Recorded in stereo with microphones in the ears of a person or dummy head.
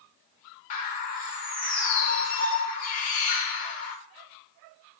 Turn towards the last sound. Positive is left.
turn(degrees=40)  # may be behind; listen again after turning